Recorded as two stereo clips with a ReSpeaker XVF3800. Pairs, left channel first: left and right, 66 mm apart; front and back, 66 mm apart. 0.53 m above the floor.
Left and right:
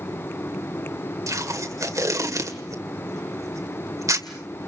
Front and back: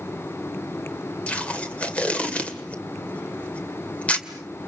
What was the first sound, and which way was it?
Tape being pulled, 70° right.